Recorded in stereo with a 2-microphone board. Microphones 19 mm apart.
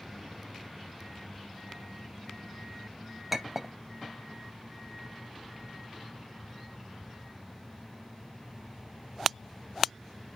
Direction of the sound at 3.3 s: 15° right (ahead or behind).